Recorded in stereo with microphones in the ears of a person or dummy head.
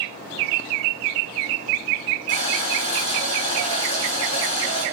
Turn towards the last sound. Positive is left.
turn(degrees=35)  # may be behind; listen again after turning